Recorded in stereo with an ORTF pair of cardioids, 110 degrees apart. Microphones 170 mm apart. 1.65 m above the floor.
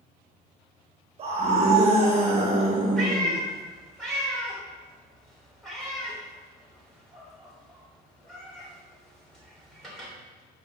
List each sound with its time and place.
1.2 s a scream: 35° right, 3 m
3.0 s a cat meowing: straight ahead, 3.5 m